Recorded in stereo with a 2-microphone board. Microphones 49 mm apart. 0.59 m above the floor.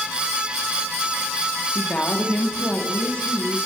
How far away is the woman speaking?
About 0.8 m.